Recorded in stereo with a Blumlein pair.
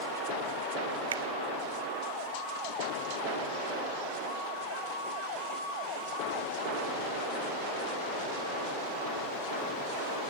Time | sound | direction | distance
1.1 | a finger snap | 65° right | 1.7 m